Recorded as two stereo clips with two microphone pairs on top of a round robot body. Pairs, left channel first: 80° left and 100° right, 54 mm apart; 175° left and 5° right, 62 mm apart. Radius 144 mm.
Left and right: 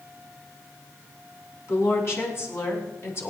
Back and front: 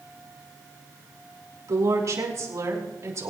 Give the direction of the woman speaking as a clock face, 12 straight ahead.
11 o'clock.